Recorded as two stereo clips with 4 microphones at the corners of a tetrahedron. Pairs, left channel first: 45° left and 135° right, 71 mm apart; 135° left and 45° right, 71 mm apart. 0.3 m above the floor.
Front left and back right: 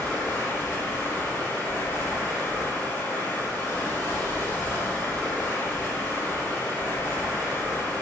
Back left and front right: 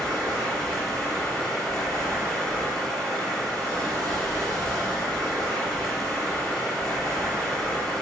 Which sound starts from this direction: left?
Running water, at 0.0 s.